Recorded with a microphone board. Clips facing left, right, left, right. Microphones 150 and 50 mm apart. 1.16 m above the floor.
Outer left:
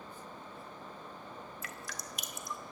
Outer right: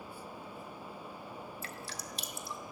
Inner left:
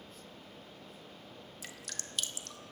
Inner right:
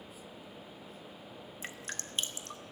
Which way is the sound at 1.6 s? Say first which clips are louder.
Outer right 1 dB, inner right 5 dB; 30° right (ahead or behind).